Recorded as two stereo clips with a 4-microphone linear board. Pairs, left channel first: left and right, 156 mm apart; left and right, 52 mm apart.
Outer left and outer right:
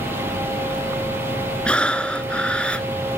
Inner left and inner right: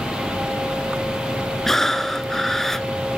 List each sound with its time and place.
1.6 s breathing: 10° left (ahead or behind), 0.6 m